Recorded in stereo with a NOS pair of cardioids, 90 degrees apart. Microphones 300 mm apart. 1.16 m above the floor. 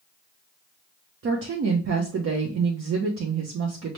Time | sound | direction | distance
1.2 | a woman speaking | 50° right | 0.9 m